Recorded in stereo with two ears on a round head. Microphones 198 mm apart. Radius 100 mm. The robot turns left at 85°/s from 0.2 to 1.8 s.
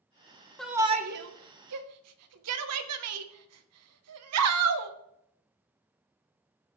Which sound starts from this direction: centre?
A shout, at 0.6 s.